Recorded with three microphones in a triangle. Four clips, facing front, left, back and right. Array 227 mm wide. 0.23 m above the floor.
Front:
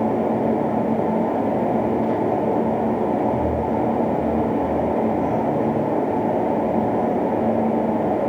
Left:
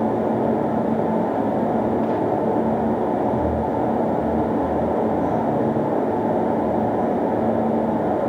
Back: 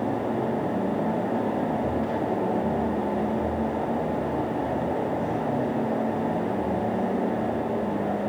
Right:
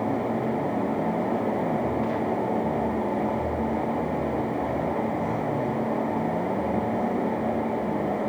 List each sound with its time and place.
Only background noise.